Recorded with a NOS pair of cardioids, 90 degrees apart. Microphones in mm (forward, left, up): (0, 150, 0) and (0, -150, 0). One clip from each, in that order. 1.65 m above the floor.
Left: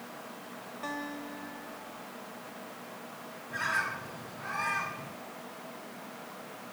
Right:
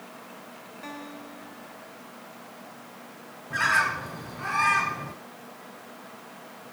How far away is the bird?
About 1.4 m.